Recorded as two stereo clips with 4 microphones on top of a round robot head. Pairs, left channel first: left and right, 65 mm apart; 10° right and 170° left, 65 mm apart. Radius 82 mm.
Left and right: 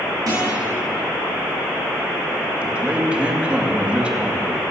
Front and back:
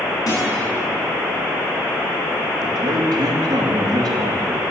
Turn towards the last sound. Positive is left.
turn(degrees=-160)